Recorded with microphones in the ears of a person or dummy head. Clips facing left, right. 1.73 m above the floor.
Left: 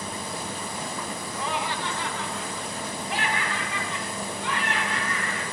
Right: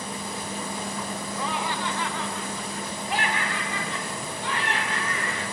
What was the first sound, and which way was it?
Laughter, 70° right (ahead or behind).